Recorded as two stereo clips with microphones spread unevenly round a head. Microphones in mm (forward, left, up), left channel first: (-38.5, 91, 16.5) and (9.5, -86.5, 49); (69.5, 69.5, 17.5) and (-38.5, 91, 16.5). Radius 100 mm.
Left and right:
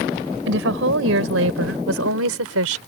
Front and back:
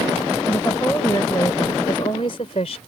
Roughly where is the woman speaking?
Right.